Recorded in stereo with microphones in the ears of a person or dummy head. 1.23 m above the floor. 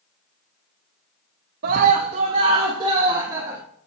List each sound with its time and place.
1.6 s a scream: 55° right (ahead or behind), 0.8 m; by 3.6 s 20° right (ahead or behind), 2.0 m